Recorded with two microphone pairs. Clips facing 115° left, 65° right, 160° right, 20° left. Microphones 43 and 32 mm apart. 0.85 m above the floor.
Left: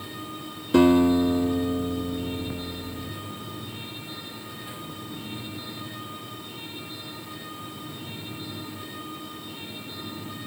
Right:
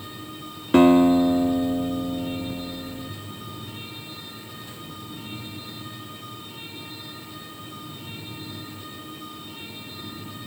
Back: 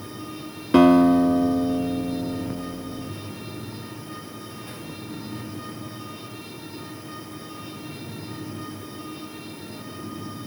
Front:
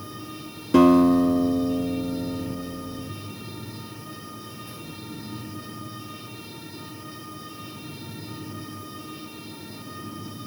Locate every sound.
0.7 s a guitar: 110° right, 1.2 m